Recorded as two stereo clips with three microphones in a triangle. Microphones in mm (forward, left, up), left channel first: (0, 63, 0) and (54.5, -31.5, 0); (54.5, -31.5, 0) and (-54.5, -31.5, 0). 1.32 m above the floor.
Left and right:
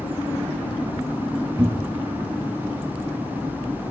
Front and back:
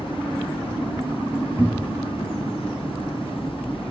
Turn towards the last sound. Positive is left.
turn(degrees=-115)